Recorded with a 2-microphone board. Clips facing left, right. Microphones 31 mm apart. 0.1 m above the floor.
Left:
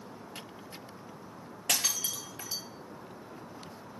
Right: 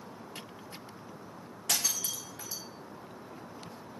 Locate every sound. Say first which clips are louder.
1.7 s breaking glass: left 1 dB; 85° left, 1.6 m